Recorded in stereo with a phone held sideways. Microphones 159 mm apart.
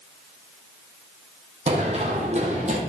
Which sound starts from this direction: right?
Running footsteps, at 1.7 s.